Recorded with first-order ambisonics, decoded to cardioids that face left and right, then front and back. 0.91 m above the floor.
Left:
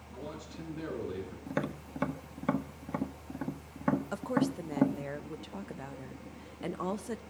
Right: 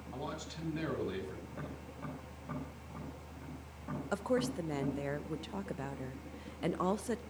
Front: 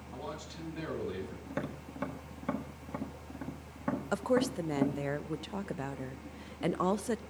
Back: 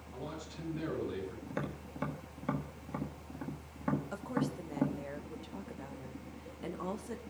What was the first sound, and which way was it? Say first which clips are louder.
A man speaking: right 1 dB, front 2 dB; 70° right.